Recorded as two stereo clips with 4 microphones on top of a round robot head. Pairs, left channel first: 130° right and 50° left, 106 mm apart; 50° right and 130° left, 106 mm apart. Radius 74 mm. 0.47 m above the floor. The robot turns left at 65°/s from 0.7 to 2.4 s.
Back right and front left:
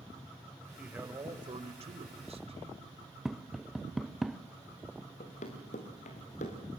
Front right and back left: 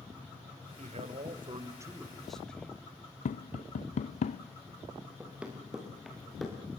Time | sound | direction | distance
0.8 | a man speaking | 135° left | 2 m
3.2 | tapping | 35° right | 0.5 m
5.2 | running footsteps | 155° right | 4 m